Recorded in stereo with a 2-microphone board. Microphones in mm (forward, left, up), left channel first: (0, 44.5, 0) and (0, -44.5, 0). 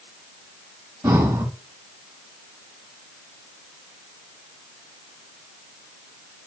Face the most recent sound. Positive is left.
turn(degrees=-30)  # may be behind; listen again after turning